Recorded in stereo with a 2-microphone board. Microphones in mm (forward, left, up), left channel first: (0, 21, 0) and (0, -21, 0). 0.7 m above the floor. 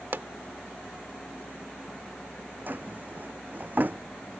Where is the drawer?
40° right (ahead or behind).